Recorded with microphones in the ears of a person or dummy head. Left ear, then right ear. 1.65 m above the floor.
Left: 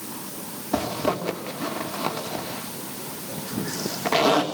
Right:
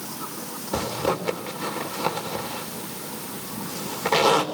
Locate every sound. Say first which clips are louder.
0.7 s a zipper: even; centre (ahead or behind), 3 m